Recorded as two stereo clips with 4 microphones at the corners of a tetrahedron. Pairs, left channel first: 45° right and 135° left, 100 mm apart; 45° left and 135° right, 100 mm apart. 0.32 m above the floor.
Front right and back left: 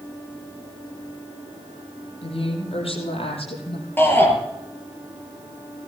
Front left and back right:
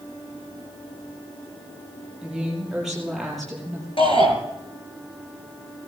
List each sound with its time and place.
2.2 s a woman speaking: 50° right, 8 m; by 3.9 s 40° right, 7 m
4.0 s a shout: 25° left, 5.5 m